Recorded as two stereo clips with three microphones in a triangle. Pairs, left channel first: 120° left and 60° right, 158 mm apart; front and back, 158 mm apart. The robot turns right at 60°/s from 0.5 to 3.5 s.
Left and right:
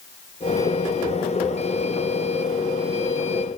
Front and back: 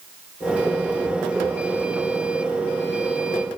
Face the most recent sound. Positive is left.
No sound to turn to.